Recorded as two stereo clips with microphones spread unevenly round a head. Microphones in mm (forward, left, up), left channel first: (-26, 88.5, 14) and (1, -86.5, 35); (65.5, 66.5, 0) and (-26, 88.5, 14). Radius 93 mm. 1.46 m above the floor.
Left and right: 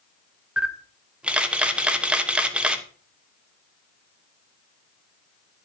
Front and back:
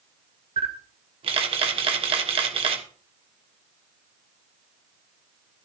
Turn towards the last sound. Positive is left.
turn(degrees=-165)